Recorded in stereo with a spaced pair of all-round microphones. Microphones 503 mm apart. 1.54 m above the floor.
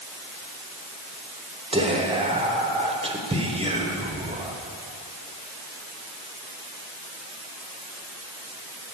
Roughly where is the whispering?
Centre.